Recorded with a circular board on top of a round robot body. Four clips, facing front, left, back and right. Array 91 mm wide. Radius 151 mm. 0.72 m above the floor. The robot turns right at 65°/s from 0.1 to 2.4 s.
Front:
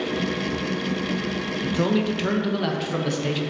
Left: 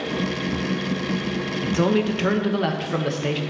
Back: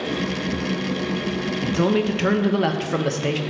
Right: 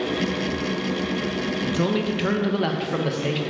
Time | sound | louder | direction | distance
1.6 | a man speaking | left 4 dB, back 2 dB | 115° left | 1.1 m